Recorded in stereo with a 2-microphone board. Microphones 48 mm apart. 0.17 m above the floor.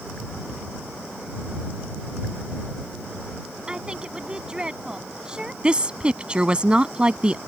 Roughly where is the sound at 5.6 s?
Right.